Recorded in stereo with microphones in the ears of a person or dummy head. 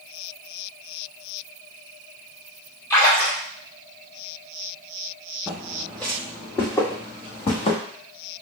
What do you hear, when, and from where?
2.9 s a splash: 15° left (ahead or behind), 1.9 m
5.5 s footsteps: 5° right (ahead or behind), 2 m; by 7.8 s 40° left (ahead or behind), 2 m